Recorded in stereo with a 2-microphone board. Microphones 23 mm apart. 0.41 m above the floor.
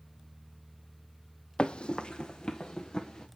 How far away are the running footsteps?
About 0.5 m.